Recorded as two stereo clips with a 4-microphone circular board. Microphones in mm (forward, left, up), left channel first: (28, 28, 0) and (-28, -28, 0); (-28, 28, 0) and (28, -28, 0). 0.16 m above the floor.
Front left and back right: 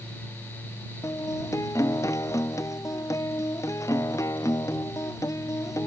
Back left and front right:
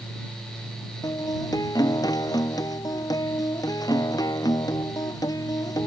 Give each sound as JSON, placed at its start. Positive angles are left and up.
{"t": 1.0, "sound": "a guitar", "azimuth_deg": 95}